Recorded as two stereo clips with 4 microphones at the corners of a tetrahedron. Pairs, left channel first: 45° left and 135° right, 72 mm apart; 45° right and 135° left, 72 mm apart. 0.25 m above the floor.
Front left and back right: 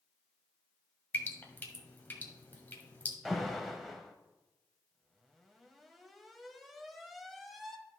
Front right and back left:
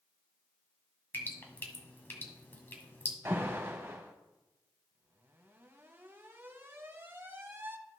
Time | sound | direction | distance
1.1 | dripping | 5° right | 1.3 m
3.2 | an alarm | 135° left | 1.0 m